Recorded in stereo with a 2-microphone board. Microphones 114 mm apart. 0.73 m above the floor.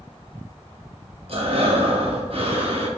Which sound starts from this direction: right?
Breathing, at 1.3 s.